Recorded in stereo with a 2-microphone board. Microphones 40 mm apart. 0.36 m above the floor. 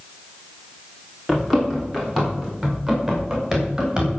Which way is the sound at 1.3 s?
Centre (ahead or behind).